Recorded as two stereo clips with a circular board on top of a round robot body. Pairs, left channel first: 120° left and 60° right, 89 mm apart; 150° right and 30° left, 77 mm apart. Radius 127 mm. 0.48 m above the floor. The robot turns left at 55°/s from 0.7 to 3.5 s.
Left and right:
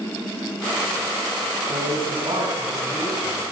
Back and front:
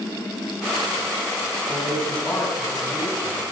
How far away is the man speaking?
About 5.5 m.